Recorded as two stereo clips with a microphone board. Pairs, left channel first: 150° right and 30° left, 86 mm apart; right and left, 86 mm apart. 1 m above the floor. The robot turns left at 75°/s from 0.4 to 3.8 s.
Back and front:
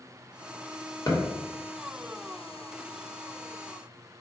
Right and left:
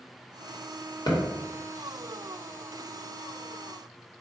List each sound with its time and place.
1.1 s a thud: 110° right, 1.0 m; by 1.2 s 120° right, 1.0 m